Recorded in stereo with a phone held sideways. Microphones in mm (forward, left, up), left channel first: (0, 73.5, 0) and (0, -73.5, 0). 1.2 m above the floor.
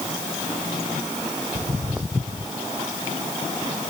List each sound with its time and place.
1.6 s footsteps: 5° right (ahead or behind)